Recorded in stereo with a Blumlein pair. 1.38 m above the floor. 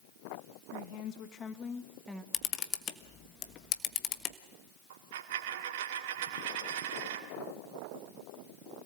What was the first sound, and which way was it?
A woman speaking, 50° left.